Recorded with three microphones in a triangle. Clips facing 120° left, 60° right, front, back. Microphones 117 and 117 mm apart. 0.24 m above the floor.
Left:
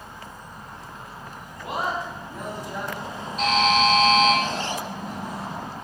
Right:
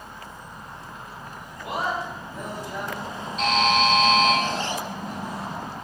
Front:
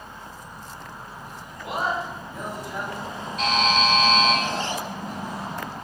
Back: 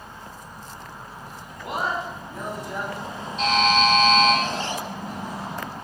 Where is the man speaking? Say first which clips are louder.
Even, even; straight behind, 1.4 m.